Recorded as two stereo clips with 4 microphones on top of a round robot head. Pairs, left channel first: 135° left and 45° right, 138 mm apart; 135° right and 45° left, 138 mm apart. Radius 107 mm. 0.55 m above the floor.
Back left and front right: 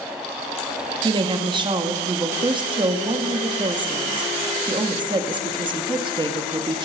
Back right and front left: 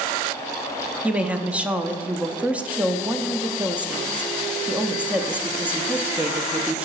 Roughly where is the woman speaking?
Ahead right.